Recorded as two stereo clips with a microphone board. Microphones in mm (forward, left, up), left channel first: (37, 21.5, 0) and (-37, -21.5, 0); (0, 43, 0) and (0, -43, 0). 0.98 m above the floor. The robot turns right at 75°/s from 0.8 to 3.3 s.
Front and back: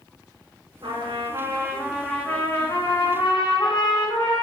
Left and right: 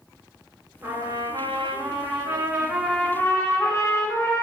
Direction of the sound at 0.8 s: 155° right.